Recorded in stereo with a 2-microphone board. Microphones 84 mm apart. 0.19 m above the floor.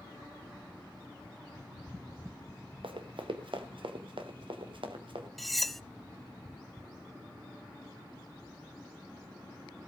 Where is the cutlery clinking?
Centre (ahead or behind), 0.6 m.